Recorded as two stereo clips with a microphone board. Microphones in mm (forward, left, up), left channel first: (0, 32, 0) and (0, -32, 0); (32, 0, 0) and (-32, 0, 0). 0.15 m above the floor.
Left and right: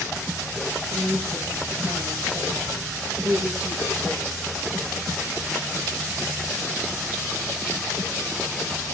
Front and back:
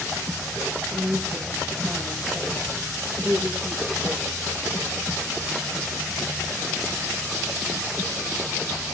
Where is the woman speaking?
105° right, 5 m.